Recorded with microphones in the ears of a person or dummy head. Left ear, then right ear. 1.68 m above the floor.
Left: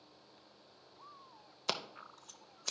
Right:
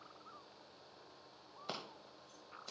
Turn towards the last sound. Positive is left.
turn(degrees=85)